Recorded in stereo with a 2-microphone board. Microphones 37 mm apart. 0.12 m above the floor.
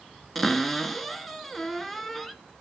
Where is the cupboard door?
5° left (ahead or behind), 0.7 m.